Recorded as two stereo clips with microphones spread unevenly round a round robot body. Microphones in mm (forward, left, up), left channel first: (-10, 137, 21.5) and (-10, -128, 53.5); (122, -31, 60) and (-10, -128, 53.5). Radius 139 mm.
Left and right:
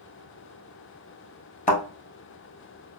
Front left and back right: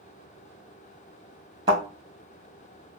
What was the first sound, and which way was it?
A thud, 150° left.